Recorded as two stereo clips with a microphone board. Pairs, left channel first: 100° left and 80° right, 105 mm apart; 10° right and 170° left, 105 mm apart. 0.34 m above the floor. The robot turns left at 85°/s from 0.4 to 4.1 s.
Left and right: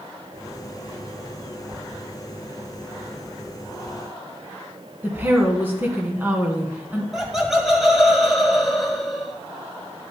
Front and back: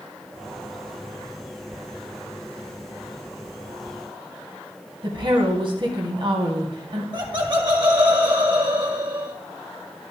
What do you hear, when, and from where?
5.0 s a woman speaking: 150° right, 2.5 m
7.1 s laughter: 165° right, 1.9 m